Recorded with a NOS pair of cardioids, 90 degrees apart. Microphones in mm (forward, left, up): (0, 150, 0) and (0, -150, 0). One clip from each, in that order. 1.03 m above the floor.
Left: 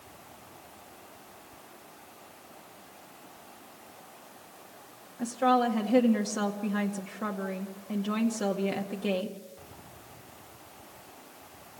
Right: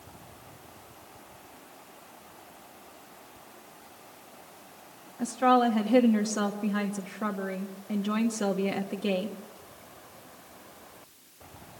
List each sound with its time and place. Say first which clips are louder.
5.2 s a woman speaking: right 2 dB; 10° right, 1.8 m